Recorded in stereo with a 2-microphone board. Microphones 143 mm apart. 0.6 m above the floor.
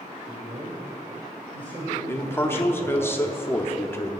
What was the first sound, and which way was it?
A man speaking, 30° right (ahead or behind).